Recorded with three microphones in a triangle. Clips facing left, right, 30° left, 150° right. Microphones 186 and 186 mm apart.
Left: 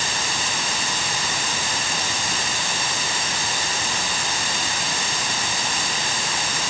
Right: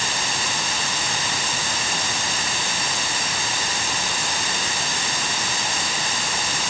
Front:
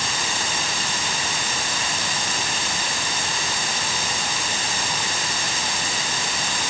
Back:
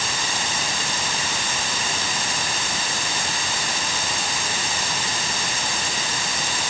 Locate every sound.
Only background noise.